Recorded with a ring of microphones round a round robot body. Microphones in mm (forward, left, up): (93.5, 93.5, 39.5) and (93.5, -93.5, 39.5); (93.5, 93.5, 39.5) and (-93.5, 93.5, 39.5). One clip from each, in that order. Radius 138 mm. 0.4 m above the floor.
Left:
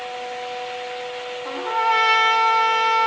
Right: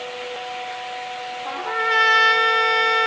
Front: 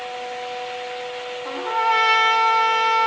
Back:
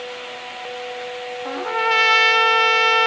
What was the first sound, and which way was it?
A trumpet, 170° right.